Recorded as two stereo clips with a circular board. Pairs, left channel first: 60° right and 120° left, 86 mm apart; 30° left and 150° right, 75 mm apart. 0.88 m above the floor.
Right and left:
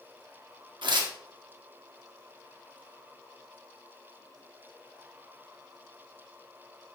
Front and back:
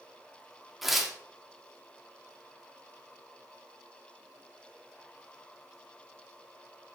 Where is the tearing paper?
125° left, 1.7 m.